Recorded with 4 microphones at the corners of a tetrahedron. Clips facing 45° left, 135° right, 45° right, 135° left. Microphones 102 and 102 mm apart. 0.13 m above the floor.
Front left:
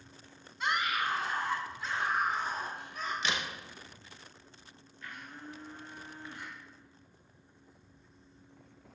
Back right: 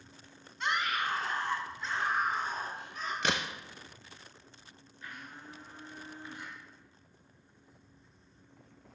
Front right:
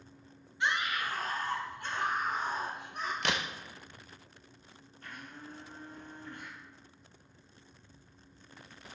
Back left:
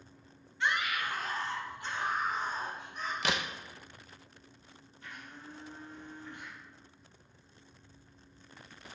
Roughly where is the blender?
Ahead right.